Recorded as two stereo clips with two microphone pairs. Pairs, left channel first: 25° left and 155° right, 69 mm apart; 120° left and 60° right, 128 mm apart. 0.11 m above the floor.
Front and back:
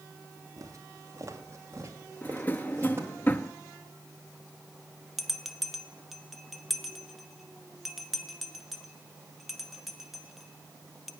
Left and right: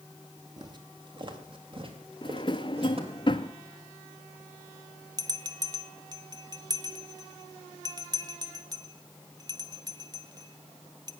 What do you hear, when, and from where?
0.6 s footsteps: 115° right, 2.5 m; by 3.2 s 100° right, 3.5 m
2.2 s a drawer: 80° left, 0.6 m
5.2 s a bell: 65° right, 0.6 m